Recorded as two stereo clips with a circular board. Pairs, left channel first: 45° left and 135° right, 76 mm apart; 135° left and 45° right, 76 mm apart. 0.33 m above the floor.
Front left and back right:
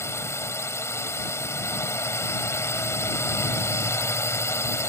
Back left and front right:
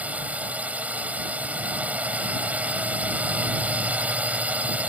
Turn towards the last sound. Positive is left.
turn(degrees=15)